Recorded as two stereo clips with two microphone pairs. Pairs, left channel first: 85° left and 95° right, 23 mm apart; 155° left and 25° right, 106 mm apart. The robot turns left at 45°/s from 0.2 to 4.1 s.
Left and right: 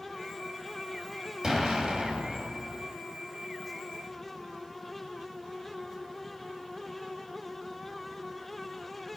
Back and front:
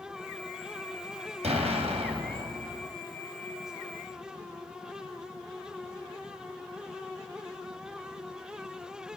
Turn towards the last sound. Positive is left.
turn(degrees=-145)